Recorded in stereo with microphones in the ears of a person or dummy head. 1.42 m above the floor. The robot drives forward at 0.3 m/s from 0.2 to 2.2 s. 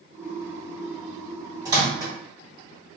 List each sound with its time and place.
1.6 s a microwave: 15° right (ahead or behind), 0.7 m; by 2.1 s 10° right (ahead or behind), 0.8 m